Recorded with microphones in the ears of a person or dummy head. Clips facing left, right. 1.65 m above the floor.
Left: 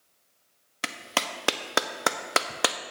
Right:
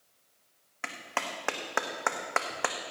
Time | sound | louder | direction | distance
0.8 | a clap | left 4 dB | 50° left (ahead or behind) | 0.8 m